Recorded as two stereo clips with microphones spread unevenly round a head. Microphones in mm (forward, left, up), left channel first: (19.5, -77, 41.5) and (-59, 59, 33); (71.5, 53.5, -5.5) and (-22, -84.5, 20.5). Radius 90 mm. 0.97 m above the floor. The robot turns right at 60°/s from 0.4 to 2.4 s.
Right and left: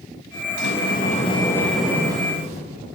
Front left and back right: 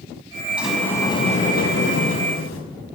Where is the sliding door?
45° right, 5.5 m; by 2.6 s 65° left, 5.5 m.